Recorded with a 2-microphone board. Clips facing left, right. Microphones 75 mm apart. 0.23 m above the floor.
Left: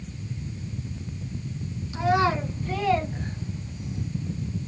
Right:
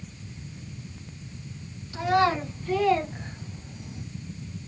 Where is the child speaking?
10° left (ahead or behind), 1.6 m; by 4.0 s 30° right (ahead or behind), 0.7 m.